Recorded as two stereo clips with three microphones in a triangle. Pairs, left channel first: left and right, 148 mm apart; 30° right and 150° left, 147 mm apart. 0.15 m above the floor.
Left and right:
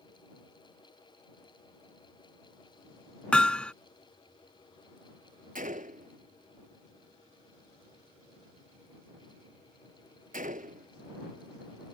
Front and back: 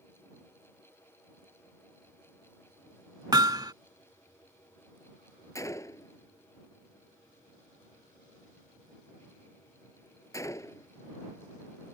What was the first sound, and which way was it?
Hammering, 165° left.